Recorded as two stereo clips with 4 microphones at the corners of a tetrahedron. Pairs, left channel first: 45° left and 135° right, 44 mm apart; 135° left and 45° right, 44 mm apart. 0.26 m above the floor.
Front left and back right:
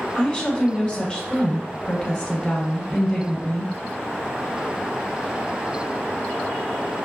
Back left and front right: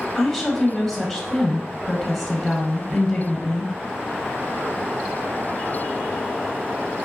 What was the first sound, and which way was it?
A woman speaking, 65° left.